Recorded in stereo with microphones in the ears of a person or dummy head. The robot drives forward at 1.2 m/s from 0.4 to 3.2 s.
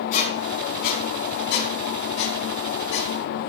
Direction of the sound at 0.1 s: 45° left (ahead or behind).